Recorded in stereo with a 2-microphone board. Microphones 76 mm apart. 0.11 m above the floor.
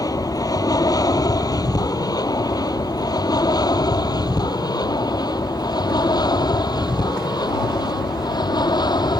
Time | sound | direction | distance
0.0 | an aircraft | 55° left (ahead or behind) | ?